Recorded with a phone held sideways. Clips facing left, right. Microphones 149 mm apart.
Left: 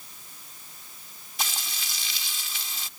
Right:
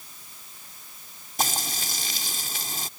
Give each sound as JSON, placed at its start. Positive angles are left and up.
{"t": 1.4, "sound": "frying", "side_deg": -45}